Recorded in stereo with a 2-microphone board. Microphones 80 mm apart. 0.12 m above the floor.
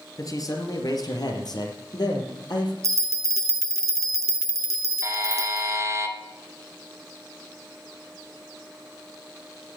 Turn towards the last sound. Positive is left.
turn(degrees=-40)  # may be behind; listen again after turning